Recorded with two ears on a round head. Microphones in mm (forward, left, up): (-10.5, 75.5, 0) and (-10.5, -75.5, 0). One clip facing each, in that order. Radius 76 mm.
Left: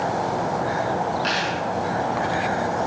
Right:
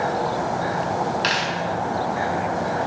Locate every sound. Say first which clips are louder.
1.2 s a dropped coin: even; 85° right, 5 m